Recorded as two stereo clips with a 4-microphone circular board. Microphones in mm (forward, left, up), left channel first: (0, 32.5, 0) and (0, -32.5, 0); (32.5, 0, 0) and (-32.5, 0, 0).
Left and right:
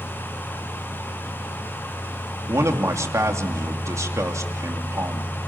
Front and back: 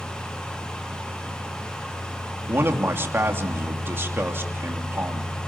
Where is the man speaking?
125° right, 3 m.